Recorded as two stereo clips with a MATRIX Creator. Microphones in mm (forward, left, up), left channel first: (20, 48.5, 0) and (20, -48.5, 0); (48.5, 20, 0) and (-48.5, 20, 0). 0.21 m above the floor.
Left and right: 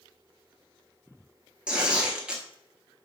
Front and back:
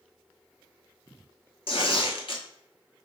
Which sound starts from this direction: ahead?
Tearing paper, at 1.7 s.